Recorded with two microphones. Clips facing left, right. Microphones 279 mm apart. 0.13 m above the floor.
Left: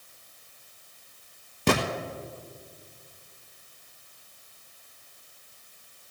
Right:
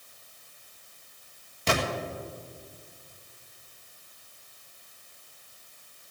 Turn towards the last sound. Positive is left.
turn(degrees=60)  # may be behind; listen again after turning